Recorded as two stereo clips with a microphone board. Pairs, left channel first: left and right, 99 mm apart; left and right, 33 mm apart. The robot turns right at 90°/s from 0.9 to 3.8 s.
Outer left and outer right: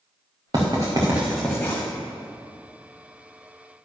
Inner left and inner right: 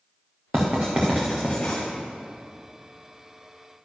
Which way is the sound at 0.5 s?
45° right (ahead or behind).